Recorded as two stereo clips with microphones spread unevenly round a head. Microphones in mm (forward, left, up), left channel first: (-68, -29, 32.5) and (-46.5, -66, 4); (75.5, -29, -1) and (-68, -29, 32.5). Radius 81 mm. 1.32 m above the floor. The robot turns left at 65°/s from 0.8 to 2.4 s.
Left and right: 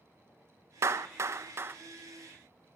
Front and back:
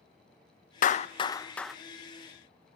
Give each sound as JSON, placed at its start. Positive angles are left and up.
{"t": 0.8, "sound": "a clap", "azimuth_deg": -35, "distance_m": 1.0}